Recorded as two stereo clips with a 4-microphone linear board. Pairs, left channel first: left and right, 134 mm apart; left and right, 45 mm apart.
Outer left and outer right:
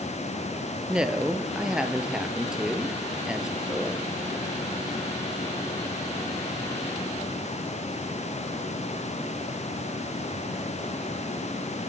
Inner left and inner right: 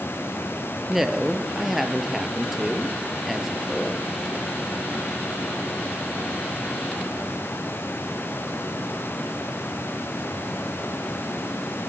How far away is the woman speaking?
About 1.9 m.